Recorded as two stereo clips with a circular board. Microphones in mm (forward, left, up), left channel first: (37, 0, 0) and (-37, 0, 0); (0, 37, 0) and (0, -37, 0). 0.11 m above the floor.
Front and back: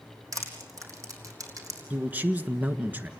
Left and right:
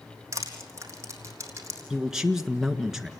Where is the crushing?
140° right, 3.5 m.